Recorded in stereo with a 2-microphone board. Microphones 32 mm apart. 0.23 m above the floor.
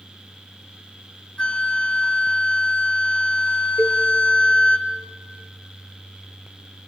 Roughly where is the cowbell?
Right.